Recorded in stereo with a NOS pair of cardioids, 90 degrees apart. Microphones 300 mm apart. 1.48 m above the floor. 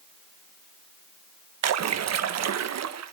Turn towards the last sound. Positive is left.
turn(degrees=-60)